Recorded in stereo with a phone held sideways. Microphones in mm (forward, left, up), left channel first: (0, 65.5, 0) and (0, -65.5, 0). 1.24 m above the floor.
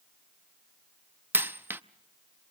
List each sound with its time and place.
1.3 s a dropped coin: 15° right (ahead or behind), 0.6 m